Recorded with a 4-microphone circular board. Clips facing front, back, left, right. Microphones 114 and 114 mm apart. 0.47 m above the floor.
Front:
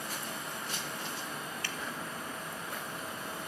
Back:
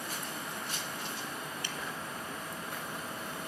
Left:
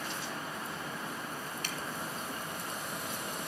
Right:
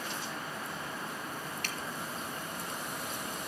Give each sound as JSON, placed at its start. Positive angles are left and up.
{"t": 1.6, "sound": "dripping", "azimuth_deg": -115, "distance_m": 0.8}